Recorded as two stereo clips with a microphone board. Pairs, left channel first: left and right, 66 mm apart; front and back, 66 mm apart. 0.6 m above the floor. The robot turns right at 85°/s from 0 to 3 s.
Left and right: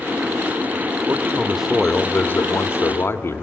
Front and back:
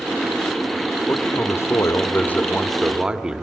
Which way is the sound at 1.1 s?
55° right.